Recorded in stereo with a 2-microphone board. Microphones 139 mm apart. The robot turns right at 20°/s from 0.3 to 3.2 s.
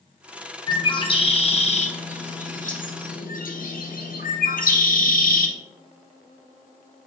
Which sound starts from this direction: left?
A bird, at 0.7 s.